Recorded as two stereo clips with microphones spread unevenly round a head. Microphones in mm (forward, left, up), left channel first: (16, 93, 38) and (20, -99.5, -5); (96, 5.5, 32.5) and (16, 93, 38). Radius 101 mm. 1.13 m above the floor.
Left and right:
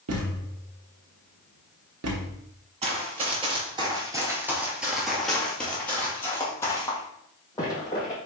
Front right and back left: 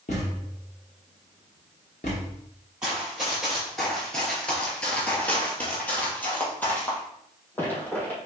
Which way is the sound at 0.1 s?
95° right.